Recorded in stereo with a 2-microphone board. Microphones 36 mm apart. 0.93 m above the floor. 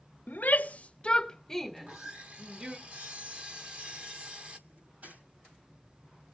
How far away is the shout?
About 0.9 m.